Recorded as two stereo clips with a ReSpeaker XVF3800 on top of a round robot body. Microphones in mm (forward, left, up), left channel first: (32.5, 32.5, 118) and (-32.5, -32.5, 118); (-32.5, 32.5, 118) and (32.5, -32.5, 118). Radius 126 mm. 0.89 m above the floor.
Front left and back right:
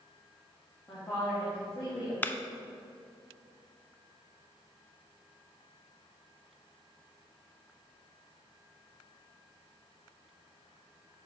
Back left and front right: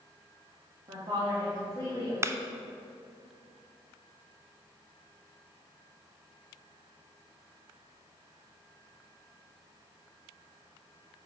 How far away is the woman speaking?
About 2 m.